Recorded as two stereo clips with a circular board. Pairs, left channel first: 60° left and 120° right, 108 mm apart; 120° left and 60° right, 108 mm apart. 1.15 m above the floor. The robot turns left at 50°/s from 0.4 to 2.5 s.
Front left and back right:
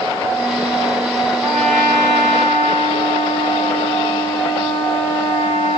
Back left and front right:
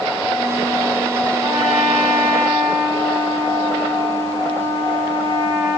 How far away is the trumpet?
About 3.5 m.